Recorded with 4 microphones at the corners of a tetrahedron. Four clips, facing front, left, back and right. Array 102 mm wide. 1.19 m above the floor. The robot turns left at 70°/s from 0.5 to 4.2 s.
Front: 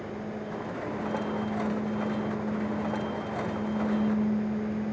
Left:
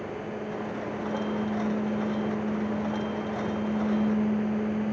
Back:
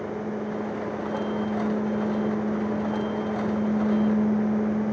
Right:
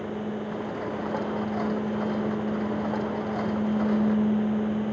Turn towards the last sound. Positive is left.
No sound to turn to.